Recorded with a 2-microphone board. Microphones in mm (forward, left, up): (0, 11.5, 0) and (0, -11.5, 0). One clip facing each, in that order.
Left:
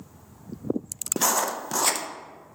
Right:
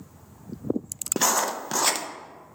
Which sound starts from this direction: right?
Writing, at 1.2 s.